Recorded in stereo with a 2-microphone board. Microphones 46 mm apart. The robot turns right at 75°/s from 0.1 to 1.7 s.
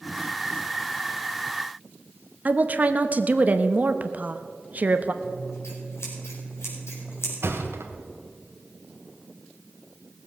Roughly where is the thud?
Right.